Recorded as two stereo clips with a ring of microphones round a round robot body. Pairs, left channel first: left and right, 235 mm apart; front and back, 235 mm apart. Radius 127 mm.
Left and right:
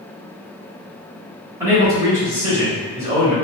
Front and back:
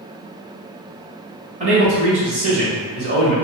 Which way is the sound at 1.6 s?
160° right.